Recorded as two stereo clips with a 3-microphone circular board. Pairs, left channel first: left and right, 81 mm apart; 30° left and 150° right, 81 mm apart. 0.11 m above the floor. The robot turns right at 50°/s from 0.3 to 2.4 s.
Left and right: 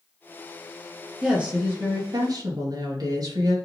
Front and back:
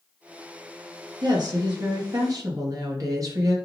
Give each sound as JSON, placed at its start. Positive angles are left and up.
{"t": 1.2, "sound": "a woman speaking", "azimuth_deg": -170, "distance_m": 3.0}